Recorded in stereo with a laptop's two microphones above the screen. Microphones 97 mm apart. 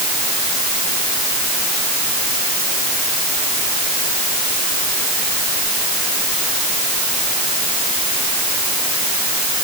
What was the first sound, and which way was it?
Only background noise.